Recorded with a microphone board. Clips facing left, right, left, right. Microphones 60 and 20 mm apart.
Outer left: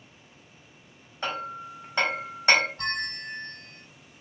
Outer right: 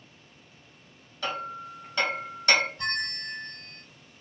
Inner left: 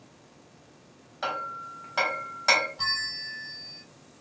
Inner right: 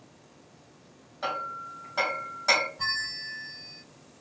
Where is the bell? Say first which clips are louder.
Even, inner left 1 dB; 65° left (ahead or behind), 2 m.